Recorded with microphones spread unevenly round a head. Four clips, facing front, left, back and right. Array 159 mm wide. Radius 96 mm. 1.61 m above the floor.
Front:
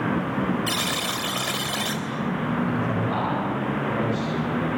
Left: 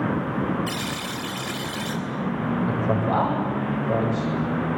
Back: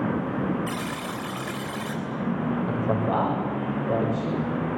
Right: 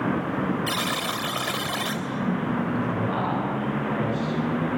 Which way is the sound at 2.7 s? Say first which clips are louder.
Left 3 dB, even; 145° left.